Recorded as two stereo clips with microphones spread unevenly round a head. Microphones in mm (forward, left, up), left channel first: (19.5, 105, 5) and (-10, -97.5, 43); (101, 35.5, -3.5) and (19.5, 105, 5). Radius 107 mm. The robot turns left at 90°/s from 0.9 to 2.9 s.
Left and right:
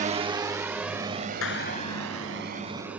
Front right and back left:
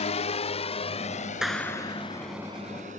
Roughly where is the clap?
Ahead left.